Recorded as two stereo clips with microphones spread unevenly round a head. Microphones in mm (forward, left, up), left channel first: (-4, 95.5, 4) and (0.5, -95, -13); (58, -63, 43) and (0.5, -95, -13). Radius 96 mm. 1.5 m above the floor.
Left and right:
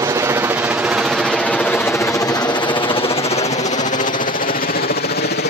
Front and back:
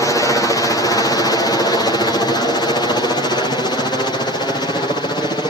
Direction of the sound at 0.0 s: 55° right.